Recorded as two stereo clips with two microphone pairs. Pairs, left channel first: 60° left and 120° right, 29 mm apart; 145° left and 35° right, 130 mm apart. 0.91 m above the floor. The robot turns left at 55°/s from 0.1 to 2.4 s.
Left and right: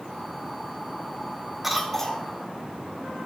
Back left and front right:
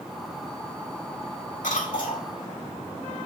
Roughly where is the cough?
Behind.